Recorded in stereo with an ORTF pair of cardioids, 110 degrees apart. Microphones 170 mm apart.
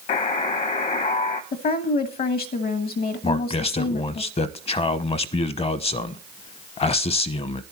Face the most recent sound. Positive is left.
turn(degrees=35)